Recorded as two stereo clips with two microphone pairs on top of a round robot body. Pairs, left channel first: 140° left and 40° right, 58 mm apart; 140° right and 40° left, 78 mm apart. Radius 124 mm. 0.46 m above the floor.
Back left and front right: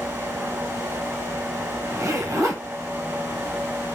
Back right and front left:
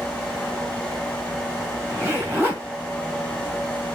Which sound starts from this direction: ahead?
A zipper, at 1.9 s.